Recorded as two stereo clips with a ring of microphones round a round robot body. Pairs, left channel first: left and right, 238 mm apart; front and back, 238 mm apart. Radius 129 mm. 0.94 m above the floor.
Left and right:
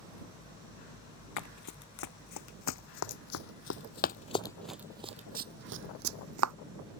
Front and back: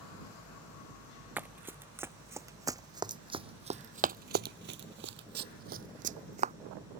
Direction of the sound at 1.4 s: 100° left.